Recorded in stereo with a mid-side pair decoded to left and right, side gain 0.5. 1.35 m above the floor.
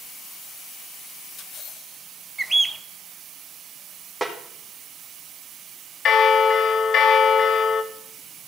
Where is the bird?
15° right, 0.6 m.